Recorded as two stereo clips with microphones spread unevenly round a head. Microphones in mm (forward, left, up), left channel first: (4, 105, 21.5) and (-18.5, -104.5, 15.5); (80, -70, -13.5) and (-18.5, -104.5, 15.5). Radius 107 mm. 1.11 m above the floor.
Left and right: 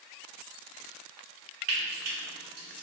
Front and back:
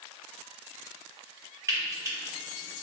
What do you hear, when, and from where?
1.7 s frying: 95° right, 2 m